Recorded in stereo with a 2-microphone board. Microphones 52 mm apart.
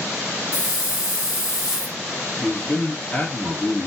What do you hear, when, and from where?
0.5 s a hiss: 15° right (ahead or behind), 2 m
2.4 s a man speaking: 25° left (ahead or behind), 1.4 m